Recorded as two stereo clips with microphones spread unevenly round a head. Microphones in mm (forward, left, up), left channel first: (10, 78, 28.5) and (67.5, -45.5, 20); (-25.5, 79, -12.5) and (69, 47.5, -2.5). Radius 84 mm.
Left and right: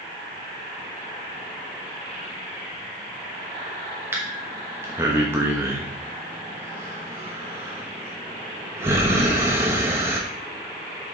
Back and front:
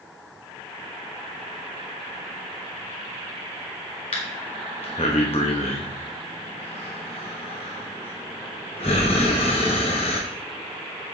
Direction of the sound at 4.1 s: 140° right.